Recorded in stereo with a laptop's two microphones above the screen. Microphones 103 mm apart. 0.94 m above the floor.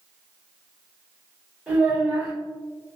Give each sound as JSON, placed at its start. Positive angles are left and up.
{"t": 1.7, "sound": "a child speaking", "side_deg": -10, "distance_m": 1.7}